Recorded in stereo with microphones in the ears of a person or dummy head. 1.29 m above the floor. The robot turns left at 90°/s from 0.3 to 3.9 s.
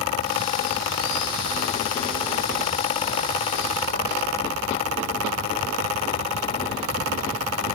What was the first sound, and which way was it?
Only background noise.